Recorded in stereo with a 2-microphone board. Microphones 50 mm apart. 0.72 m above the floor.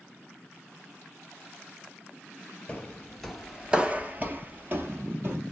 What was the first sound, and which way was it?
Footsteps, 25° left (ahead or behind).